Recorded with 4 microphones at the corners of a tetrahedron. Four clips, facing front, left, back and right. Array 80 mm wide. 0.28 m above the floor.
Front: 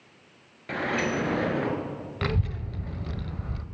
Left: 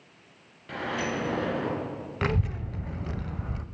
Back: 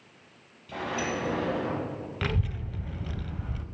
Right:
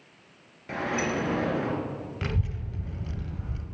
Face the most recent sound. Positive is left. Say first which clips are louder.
# left 8 dB, front 3 dB
turn(degrees=70)